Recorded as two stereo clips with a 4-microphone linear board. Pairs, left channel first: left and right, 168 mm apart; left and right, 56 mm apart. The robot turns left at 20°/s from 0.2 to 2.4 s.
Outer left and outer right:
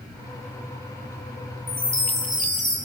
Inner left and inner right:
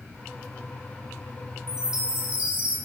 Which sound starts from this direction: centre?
A chime, at 1.7 s.